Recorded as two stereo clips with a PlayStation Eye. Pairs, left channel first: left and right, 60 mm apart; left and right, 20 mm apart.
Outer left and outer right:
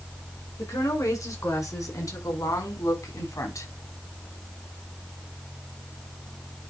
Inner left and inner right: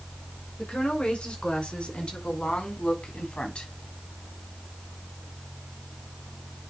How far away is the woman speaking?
About 5.5 m.